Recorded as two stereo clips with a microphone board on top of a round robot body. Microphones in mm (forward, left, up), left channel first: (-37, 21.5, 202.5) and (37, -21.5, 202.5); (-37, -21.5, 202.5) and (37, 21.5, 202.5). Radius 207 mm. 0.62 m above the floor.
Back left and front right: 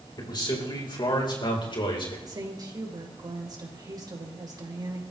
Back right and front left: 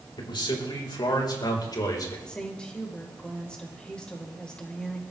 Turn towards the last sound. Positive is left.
turn(degrees=-70)